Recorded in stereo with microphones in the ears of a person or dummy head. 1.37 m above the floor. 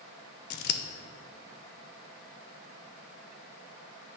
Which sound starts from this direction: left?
Scissors, at 0.5 s.